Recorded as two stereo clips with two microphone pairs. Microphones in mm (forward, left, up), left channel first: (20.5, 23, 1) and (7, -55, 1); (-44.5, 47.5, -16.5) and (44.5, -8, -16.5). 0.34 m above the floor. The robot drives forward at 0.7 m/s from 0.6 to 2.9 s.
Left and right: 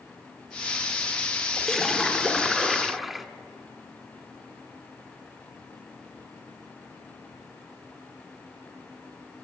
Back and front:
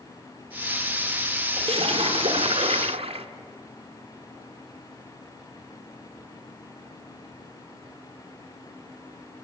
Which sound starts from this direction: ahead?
A splash, at 1.6 s.